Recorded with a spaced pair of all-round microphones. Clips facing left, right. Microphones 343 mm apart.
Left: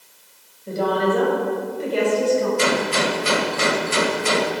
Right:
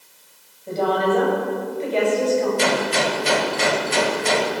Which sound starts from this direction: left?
A woman speaking, at 0.7 s.